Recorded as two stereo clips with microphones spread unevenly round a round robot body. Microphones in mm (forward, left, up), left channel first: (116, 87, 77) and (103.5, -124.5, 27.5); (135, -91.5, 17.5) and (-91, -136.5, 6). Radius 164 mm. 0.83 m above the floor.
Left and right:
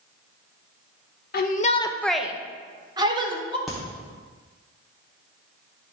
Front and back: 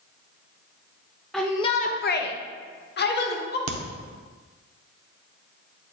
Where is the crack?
175° left, 0.8 m.